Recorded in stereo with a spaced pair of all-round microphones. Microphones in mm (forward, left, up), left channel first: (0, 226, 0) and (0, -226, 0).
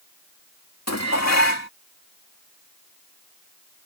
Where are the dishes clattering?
35° left (ahead or behind).